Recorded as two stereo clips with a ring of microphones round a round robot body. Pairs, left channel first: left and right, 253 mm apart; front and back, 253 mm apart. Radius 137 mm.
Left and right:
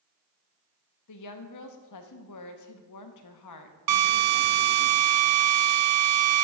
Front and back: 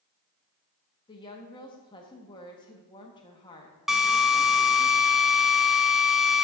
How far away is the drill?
About 0.9 m.